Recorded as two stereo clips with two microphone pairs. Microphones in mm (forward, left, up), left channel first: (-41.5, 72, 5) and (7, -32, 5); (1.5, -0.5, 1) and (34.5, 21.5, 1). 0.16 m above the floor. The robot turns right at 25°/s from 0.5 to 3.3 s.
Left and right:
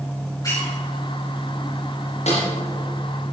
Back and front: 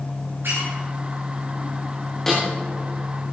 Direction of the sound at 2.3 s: 135° left.